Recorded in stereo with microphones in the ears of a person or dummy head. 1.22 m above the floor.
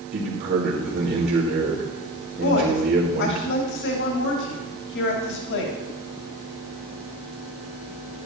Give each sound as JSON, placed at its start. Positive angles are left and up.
{"t": 0.1, "sound": "a man speaking", "side_deg": -45, "distance_m": 2.0}
{"t": 2.4, "sound": "a woman speaking", "side_deg": 55, "distance_m": 2.5}